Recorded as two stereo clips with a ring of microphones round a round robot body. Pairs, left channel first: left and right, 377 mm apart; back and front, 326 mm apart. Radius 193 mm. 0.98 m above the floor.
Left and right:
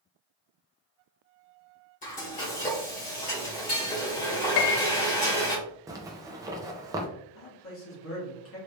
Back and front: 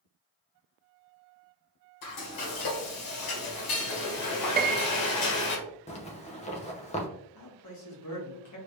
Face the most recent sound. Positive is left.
turn(degrees=145)